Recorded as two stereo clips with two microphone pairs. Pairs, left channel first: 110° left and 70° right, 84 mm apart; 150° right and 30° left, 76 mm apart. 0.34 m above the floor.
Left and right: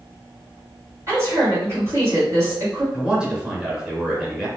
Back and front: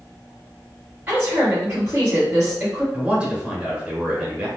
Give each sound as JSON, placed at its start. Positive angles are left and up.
{"t": 1.1, "sound": "a woman speaking", "azimuth_deg": -30, "distance_m": 1.9}
{"t": 2.9, "sound": "a man speaking", "azimuth_deg": -15, "distance_m": 1.0}